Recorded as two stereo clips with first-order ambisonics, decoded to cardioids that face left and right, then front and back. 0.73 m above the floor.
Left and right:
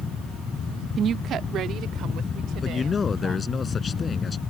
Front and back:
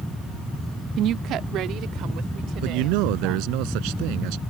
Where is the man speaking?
165° left.